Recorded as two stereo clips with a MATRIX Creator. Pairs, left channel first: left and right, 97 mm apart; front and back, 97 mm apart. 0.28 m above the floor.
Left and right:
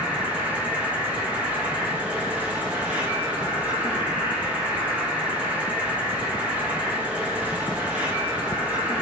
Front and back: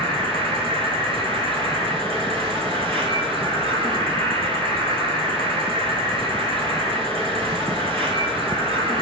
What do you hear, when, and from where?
0.0 s an insect: 165° right, 0.9 m